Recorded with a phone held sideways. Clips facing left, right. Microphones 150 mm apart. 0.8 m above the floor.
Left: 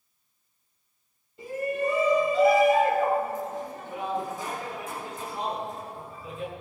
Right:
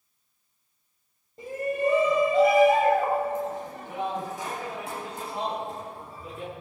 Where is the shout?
45° right (ahead or behind), 4 m; by 6.5 s 75° right (ahead or behind), 6 m.